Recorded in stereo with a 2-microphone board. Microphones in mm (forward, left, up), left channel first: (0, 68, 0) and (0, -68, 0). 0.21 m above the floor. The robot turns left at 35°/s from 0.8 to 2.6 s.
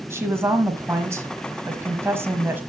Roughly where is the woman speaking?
Centre.